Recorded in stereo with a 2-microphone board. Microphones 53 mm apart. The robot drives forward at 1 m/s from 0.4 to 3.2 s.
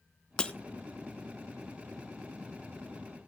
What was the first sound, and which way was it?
Breaking glass, 20° left (ahead or behind).